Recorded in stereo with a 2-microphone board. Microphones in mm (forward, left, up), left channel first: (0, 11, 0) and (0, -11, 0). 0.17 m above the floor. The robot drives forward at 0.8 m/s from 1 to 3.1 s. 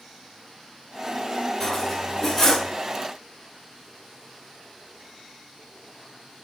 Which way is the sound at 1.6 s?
15° left (ahead or behind).